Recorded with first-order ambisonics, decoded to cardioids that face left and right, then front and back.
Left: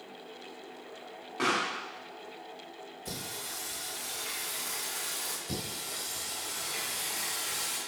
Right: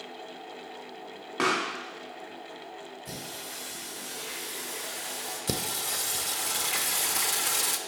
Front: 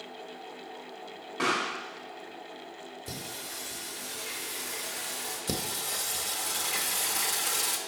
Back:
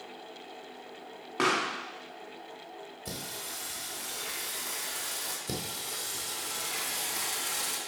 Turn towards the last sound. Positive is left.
turn(degrees=-70)